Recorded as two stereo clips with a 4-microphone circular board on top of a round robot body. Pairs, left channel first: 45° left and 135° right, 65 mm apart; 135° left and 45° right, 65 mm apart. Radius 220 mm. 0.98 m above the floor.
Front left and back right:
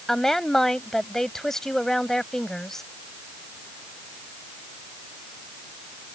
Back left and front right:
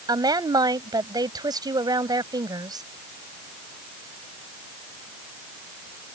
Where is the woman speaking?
40° right.